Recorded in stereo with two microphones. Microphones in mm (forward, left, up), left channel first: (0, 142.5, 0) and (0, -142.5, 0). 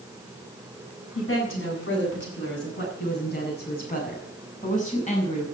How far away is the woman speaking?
About 8.5 m.